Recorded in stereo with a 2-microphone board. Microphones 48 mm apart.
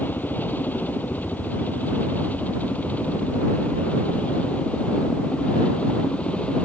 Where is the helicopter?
40° left (ahead or behind); by 6.7 s 25° left (ahead or behind).